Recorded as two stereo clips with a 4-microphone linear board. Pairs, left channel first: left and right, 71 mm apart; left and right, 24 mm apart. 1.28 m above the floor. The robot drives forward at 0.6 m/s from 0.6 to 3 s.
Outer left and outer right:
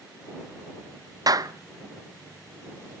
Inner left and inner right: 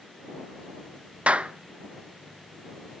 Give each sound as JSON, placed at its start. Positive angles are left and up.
{"t": 1.3, "sound": "a clap", "side_deg": -60, "distance_m": 0.7}